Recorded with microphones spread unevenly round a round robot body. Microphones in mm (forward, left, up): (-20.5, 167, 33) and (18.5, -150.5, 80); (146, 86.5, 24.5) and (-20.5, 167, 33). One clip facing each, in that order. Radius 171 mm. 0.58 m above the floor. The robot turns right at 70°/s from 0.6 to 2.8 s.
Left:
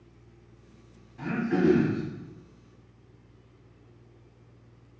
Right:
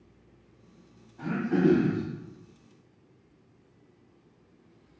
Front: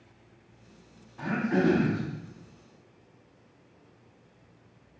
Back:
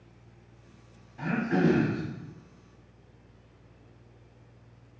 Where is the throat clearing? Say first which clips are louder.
Even, even; 95° left, 1.2 m; by 2.0 s 155° left, 1.2 m.